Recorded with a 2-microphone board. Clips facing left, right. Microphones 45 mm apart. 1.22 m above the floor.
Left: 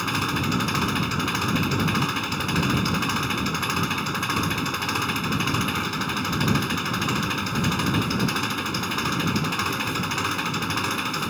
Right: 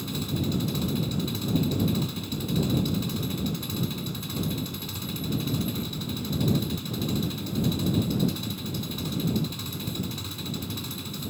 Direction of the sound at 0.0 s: 65° left (ahead or behind).